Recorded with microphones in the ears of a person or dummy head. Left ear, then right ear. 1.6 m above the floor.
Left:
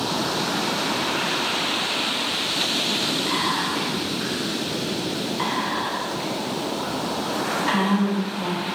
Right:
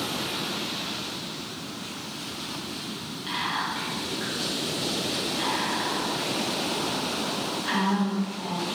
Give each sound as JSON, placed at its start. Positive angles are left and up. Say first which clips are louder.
{"t": 3.3, "sound": "whispering", "louder": "left 5 dB", "side_deg": 5, "distance_m": 1.7}